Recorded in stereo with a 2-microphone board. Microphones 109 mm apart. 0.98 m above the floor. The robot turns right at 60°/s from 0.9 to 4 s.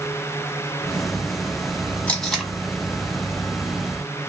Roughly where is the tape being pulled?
Centre.